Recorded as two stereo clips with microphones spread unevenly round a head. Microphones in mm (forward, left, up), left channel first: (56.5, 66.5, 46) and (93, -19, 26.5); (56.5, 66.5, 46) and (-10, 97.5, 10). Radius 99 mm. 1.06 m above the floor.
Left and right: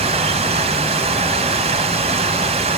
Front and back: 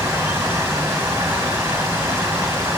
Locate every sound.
0.0 s running water: 120° right, 2 m